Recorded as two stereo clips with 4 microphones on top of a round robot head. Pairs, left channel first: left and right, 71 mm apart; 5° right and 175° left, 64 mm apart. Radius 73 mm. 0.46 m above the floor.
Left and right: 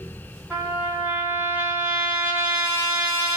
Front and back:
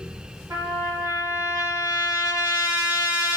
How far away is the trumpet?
About 1.9 m.